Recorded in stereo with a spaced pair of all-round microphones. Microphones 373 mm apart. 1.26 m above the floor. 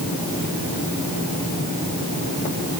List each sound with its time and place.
Only background noise.